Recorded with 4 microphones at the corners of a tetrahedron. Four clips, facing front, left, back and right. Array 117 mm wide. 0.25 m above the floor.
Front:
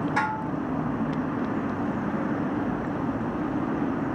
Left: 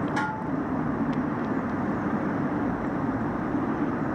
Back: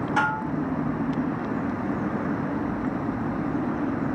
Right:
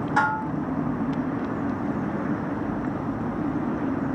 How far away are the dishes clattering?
About 0.7 m.